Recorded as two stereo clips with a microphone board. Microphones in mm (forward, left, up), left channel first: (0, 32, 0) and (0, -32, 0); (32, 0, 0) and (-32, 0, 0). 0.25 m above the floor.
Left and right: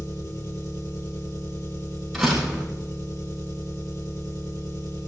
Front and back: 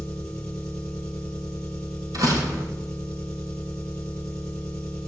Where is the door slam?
Straight behind, 5.5 m.